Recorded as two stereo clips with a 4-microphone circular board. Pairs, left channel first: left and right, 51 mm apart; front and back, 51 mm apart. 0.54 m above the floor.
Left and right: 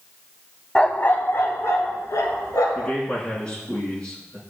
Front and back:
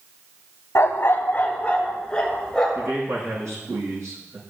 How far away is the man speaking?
About 6.5 m.